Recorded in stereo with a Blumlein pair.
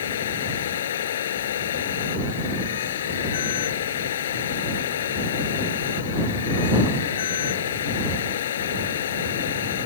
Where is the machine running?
60° left.